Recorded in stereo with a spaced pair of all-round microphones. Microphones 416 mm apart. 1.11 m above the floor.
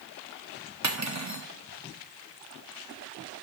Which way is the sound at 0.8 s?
40° right (ahead or behind).